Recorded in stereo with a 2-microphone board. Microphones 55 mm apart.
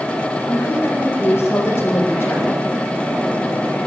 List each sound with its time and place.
0.5 s a woman speaking: 45° left (ahead or behind), 9 m